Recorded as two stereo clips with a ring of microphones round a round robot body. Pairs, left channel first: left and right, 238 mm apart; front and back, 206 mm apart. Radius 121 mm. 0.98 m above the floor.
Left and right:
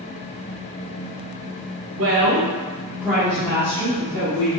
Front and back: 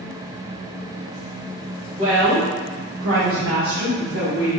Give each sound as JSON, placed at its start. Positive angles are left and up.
{"t": 2.0, "sound": "a woman speaking", "azimuth_deg": -110, "distance_m": 0.9}